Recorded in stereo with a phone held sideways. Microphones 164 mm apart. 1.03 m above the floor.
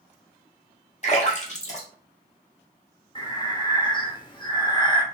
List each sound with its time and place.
1.0 s a splash: 45° left (ahead or behind), 1.2 m
3.1 s breathing: 30° left (ahead or behind), 0.9 m